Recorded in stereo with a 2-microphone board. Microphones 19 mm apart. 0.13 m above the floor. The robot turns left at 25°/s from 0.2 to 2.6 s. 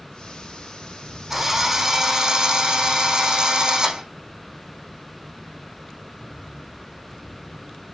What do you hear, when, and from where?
1.3 s a drill: 5° right, 5.5 m; by 4.0 s 40° right, 5.5 m